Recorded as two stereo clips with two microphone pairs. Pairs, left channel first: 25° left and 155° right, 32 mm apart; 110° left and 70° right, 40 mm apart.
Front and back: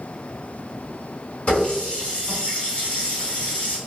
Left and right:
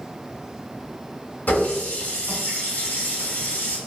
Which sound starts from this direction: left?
A running tap, at 1.5 s.